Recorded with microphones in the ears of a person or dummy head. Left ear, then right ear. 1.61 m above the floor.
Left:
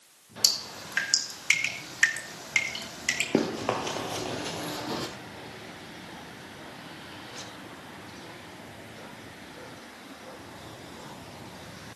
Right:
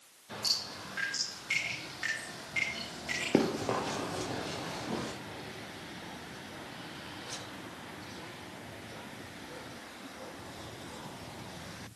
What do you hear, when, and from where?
0.4 s dripping: 60° left (ahead or behind), 2.5 m
3.3 s running footsteps: centre (ahead or behind), 1.7 m; by 5.1 s 55° left (ahead or behind), 3 m